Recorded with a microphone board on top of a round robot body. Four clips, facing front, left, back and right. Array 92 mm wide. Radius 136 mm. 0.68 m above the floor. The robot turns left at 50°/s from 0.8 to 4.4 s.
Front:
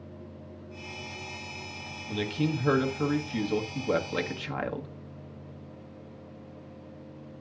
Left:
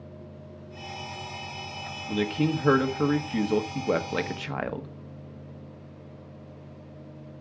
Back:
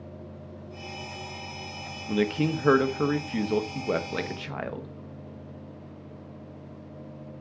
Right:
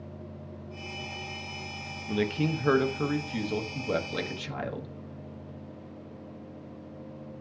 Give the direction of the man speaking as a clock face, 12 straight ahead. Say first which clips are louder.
Left 2 dB, back 4 dB; 5 o'clock.